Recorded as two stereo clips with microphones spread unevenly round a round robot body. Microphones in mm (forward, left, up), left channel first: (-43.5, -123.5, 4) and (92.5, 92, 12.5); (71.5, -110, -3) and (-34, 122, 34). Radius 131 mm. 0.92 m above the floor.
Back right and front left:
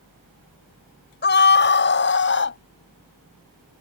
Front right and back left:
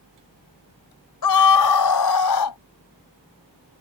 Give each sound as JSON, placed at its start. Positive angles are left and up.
{"t": 1.2, "sound": "a scream", "azimuth_deg": -75}